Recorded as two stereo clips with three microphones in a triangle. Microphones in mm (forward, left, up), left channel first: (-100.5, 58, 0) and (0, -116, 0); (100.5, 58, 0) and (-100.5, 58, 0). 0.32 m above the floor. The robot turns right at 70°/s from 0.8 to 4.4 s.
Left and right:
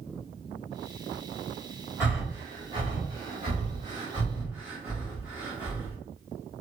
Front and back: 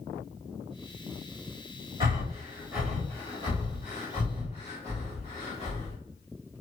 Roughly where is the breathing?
Behind right.